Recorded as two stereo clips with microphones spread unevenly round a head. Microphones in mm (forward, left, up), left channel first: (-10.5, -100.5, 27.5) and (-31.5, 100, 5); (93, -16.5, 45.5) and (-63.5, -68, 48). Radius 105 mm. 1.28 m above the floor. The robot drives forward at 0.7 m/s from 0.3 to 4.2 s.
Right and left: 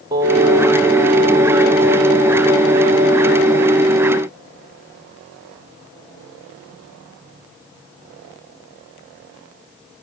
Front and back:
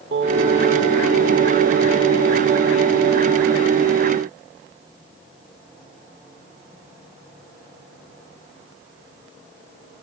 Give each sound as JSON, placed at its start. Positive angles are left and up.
{"t": 0.1, "sound": "singing", "azimuth_deg": 170, "distance_m": 2.0}